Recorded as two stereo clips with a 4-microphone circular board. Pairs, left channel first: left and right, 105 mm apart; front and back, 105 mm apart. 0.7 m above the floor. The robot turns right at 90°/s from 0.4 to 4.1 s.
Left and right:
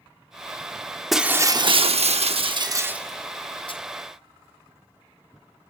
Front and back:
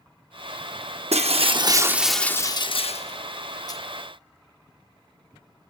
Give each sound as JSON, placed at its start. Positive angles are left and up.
{"t": 1.1, "sound": "breaking glass", "azimuth_deg": 180, "distance_m": 0.6}